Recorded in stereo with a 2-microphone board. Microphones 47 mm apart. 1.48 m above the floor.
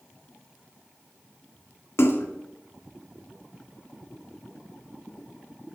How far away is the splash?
About 1.7 m.